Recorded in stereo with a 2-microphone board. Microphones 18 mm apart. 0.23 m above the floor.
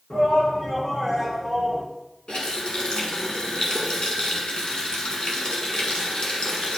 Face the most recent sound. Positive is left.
turn(degrees=50)  # may be behind; listen again after turning